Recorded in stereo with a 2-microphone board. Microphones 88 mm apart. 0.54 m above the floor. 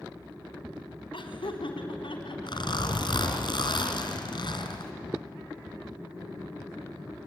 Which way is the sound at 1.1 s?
75° left (ahead or behind).